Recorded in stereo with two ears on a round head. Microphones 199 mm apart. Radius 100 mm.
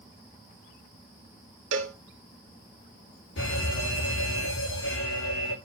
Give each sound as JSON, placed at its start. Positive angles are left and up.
{"t": 1.7, "sound": "a cowbell", "side_deg": -55, "distance_m": 1.3}
{"t": 3.4, "sound": "a fire alarm", "side_deg": 55, "distance_m": 6.0}